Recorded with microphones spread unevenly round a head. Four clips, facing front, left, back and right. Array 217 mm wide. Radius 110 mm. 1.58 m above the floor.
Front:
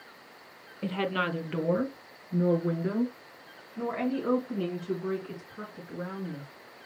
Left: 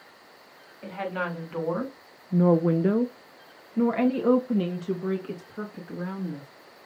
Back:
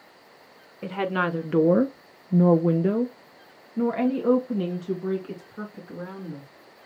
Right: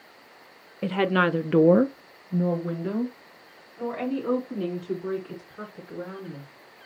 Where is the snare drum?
No snare drum in this recording.